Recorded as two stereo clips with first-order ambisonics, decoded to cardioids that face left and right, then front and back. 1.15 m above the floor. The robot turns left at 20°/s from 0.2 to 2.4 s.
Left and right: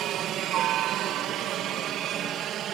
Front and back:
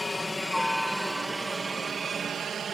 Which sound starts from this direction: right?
A helicopter, at 0.0 s.